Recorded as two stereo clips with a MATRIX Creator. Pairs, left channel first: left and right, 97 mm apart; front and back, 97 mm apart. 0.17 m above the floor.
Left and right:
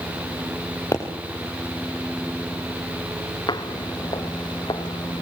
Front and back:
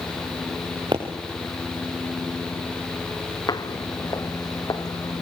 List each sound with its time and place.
0.9 s a pop: 145° left, 5.5 m
3.5 s footsteps: 50° left, 1.5 m